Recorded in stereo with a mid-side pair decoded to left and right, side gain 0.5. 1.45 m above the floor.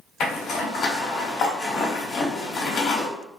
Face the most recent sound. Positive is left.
turn(degrees=60)